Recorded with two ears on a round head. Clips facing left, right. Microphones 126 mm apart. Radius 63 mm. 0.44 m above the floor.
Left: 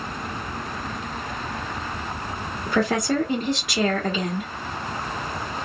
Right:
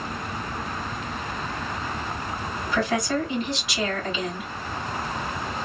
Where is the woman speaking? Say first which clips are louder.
Left 3 dB; 40° left (ahead or behind), 1.3 m.